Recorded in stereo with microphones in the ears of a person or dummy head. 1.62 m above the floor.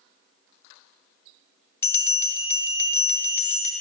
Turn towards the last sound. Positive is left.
turn(degrees=15)  # may be behind; listen again after turning